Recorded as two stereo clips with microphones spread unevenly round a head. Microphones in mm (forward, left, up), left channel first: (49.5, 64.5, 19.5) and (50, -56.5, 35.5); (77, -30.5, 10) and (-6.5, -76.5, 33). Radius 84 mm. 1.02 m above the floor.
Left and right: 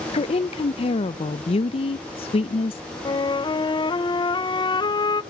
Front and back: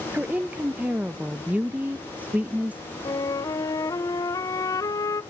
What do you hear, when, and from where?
0.1 s a woman speaking: 125° left, 0.5 m
3.0 s a flute: 60° left, 0.7 m